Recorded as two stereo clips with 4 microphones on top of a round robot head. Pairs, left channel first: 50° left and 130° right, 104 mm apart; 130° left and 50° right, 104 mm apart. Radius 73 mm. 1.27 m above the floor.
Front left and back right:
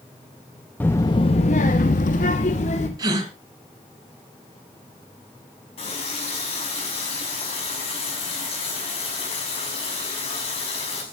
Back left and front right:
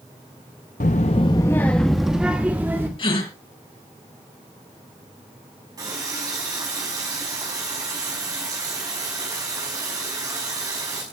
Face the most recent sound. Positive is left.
turn(degrees=10)